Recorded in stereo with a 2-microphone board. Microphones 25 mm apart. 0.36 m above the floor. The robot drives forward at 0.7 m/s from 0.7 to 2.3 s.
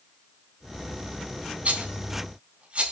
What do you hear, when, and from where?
1.6 s a rattle: 65° right (ahead or behind), 3.5 m